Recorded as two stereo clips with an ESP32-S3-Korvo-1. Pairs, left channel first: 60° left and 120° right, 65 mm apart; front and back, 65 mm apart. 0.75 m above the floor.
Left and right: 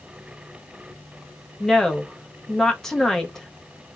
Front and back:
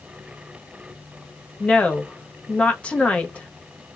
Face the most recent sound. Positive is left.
turn(degrees=-15)